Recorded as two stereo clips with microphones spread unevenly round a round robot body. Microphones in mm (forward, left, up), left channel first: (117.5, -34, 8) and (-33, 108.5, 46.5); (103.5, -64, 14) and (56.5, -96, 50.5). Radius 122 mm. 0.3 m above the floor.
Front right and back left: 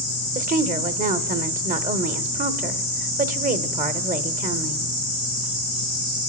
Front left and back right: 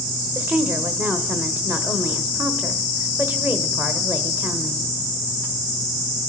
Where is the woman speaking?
110° left, 0.9 m.